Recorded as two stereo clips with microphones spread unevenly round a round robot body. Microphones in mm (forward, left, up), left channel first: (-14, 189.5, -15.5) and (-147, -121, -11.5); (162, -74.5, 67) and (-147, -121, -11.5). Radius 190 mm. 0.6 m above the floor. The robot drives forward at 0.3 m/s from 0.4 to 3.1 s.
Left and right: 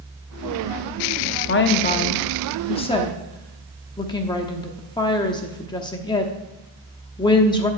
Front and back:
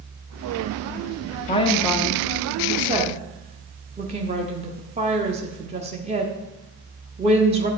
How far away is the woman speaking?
About 0.7 m.